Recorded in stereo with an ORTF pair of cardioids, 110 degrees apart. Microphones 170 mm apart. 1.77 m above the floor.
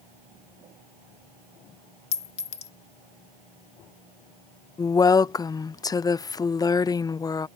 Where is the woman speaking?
25° left.